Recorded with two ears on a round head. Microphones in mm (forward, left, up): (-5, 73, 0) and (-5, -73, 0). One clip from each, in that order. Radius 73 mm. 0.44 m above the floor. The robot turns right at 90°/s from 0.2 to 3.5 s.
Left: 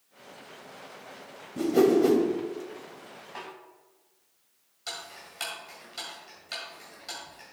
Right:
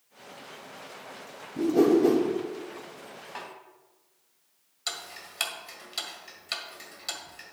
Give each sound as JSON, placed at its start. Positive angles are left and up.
{"t": 1.6, "sound": "a whoosh", "side_deg": 60, "distance_m": 1.7}
{"t": 3.4, "sound": "a snare drum", "side_deg": -25, "distance_m": 2.5}
{"t": 4.9, "sound": "ticking", "side_deg": -40, "distance_m": 1.7}